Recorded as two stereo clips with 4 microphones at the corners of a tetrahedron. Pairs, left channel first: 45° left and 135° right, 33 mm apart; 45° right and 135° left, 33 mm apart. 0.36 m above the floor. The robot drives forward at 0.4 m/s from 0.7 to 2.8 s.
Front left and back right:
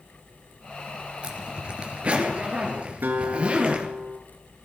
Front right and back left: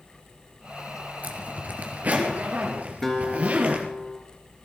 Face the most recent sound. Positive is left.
turn(degrees=-125)